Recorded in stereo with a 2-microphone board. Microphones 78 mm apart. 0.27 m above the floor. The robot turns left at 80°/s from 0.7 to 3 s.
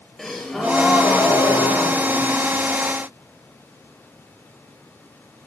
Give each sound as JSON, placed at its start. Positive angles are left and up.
{"t": 0.2, "sound": "a gasp", "azimuth_deg": 175, "distance_m": 4.0}